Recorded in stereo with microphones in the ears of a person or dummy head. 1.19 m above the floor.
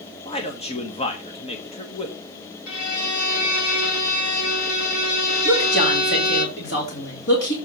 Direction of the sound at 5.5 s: 60° left (ahead or behind).